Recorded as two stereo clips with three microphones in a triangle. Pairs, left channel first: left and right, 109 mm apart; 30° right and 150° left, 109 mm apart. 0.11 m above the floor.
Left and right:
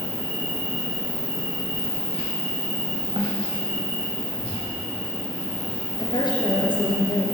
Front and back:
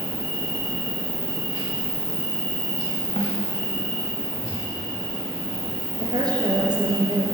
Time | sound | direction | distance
0.0 | an insect | 100° left | 4 m
3.2 | a snare drum | 45° right | 1.9 m
6.0 | a woman speaking | 115° left | 2.5 m